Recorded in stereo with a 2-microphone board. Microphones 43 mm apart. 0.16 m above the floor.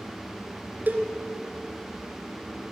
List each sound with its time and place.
0.9 s a cowbell: 40° right (ahead or behind), 2 m